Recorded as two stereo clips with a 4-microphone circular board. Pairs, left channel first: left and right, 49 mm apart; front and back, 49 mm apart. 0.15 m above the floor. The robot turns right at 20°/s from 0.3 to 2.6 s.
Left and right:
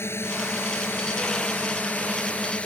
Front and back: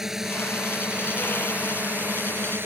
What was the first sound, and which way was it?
A drone, 100° left.